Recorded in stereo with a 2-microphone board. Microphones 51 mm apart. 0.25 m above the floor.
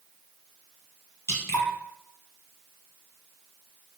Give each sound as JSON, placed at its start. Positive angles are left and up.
{"t": 1.3, "sound": "dripping", "side_deg": 55, "distance_m": 1.7}